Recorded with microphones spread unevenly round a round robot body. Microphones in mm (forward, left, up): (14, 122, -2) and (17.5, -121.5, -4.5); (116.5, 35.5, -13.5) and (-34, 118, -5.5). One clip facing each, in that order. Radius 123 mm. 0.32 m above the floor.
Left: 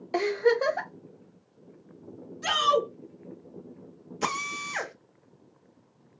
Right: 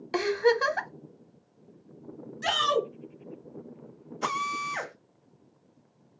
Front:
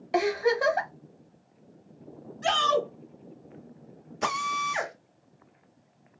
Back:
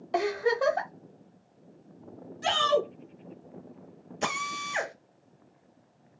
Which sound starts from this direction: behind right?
A shout, at 2.4 s.